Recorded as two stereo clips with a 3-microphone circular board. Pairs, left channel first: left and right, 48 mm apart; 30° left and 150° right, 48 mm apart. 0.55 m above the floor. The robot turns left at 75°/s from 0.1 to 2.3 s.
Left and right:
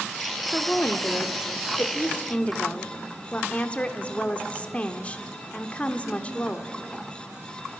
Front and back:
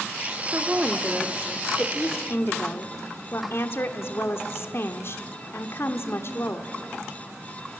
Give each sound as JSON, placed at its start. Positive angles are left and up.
{"t": 0.5, "sound": "a woman speaking", "azimuth_deg": 165, "distance_m": 1.1}